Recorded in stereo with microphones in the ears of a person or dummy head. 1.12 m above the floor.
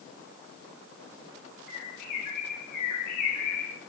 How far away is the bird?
About 4 m.